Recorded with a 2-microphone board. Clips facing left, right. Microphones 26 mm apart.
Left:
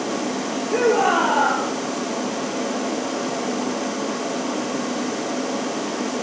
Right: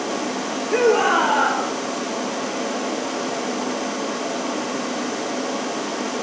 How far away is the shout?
About 7.5 m.